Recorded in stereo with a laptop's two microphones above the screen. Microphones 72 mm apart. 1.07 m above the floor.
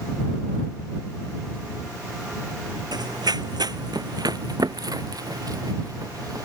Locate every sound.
2.9 s running footsteps: 70° right (ahead or behind); by 6.5 s 55° right (ahead or behind)